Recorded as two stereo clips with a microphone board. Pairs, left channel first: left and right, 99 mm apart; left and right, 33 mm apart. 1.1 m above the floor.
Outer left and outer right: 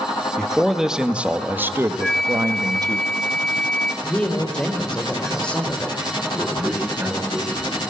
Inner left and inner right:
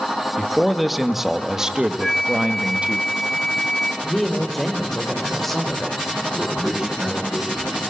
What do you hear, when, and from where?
0.4 s a man speaking: 5° left (ahead or behind), 2.0 m; by 3.0 s 40° right (ahead or behind), 2 m
2.0 s a flute: 5° left (ahead or behind), 0.9 m
4.0 s a woman speaking: 10° left (ahead or behind), 4.5 m
6.3 s a man speaking: 20° right (ahead or behind), 9.5 m